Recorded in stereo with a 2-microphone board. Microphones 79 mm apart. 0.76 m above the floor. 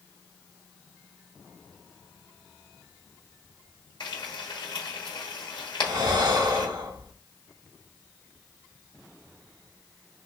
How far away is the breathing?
About 1.3 m.